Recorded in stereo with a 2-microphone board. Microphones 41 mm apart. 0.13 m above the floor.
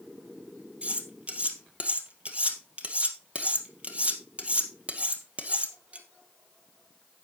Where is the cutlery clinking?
30° right (ahead or behind), 2 m.